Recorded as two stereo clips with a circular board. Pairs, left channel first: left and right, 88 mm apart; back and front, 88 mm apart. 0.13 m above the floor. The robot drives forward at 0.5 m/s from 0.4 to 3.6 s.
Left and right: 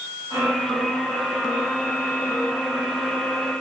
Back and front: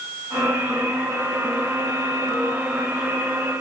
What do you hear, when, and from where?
Only background noise.